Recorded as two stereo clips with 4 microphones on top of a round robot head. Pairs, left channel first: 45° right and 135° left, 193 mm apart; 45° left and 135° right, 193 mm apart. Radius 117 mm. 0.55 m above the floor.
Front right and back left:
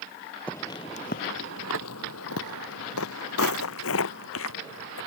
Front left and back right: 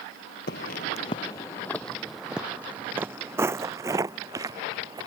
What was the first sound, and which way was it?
Footsteps, 35° left.